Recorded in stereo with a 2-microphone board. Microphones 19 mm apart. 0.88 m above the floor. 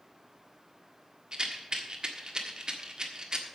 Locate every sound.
1.3 s a rattle: 50° right (ahead or behind), 1.5 m